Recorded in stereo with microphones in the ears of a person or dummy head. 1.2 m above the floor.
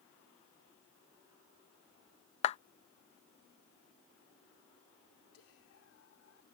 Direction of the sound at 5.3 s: 80° left.